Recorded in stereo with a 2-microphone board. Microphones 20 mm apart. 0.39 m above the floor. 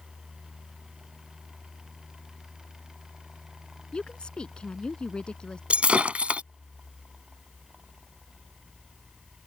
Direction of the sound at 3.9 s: 45° left (ahead or behind).